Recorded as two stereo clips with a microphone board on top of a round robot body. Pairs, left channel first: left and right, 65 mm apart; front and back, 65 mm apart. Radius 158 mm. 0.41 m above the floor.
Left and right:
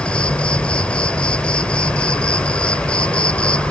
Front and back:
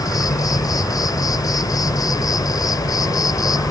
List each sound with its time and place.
0.0 s an insect: 15° left